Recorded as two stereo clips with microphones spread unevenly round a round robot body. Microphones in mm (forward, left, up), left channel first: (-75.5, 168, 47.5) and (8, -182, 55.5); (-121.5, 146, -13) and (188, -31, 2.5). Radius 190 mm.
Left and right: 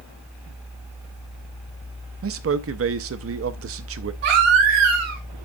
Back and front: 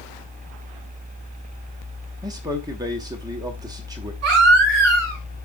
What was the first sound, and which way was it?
A man speaking, 110° right.